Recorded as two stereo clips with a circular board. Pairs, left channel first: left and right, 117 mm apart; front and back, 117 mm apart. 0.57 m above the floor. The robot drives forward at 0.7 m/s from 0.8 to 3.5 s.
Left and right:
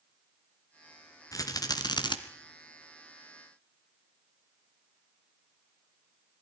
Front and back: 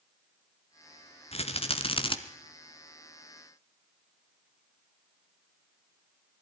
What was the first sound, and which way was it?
A rattle, 30° left.